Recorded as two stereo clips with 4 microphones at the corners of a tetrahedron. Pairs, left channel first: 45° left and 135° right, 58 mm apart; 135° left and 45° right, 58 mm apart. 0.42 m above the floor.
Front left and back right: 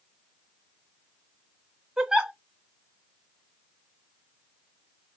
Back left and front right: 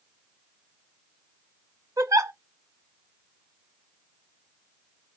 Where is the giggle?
55° right, 0.7 m.